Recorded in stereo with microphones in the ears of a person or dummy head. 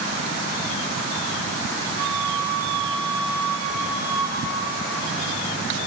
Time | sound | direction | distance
2.0 | a flute | 15° left (ahead or behind) | 3 m